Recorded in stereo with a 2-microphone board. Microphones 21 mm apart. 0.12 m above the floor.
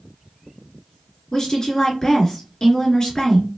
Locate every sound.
1.3 s a woman speaking: 30° left (ahead or behind), 1.6 m